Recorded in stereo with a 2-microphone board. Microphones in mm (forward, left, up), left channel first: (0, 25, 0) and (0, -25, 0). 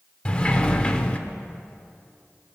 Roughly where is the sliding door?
Left.